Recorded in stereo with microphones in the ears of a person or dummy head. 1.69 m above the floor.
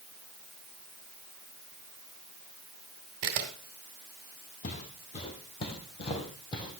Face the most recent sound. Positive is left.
turn(degrees=25)  # may be behind; listen again after turning